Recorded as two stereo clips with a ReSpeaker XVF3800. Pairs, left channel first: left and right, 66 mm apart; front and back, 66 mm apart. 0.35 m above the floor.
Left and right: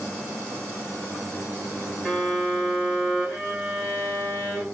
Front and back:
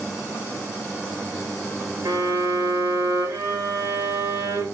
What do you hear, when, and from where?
2.0 s a violin: 170° right, 3 m